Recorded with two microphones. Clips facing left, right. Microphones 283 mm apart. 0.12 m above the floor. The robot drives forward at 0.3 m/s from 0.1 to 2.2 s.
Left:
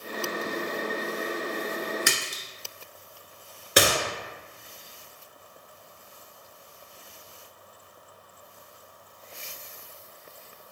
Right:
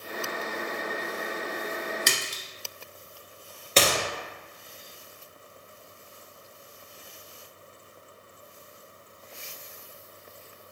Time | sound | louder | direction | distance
2.1 | a splash | left 1 dB | 5° left (ahead or behind) | 1.1 m
3.8 | a gunshot | left 1 dB | 15° left (ahead or behind) | 0.8 m